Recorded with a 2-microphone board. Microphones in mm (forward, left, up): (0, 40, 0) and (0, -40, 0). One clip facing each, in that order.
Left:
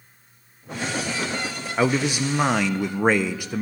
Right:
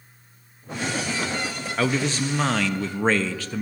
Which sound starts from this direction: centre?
A man speaking, at 1.8 s.